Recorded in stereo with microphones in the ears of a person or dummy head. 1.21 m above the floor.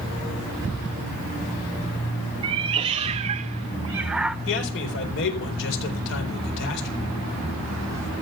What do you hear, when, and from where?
2.4 s a cat meowing: 25° right (ahead or behind), 0.9 m; by 4.4 s centre (ahead or behind), 0.6 m
4.5 s a man speaking: 70° left (ahead or behind), 4 m